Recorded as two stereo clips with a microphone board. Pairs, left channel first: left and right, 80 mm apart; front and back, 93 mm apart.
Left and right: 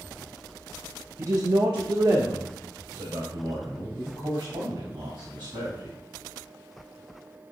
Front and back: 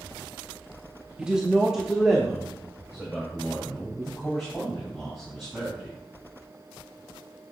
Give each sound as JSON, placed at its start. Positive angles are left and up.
{"t": 1.2, "sound": "a man speaking", "azimuth_deg": -105, "distance_m": 0.6}